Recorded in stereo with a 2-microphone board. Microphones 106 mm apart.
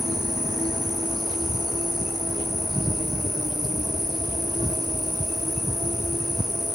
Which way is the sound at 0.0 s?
40° right (ahead or behind).